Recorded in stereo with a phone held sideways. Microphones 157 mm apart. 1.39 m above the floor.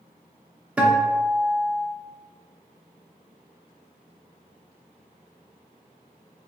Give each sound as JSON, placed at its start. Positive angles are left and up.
{"t": 0.8, "sound": "a guitar", "side_deg": -10, "distance_m": 0.6}